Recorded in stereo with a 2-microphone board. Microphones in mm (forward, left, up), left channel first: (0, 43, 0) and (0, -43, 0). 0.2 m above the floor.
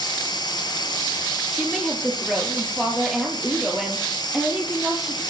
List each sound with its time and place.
0.0 s running water: 55° left (ahead or behind), 2.5 m
1.5 s a woman speaking: 5° right (ahead or behind), 3.5 m